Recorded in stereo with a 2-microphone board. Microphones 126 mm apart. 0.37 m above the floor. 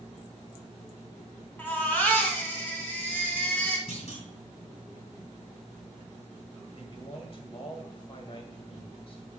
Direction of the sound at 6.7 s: 45° left (ahead or behind).